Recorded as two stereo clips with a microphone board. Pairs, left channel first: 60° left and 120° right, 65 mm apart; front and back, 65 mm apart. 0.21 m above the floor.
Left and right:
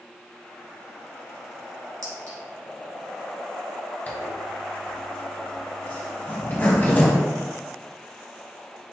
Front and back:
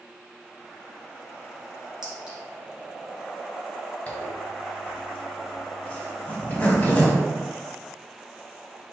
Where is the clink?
100° right, 1.9 m.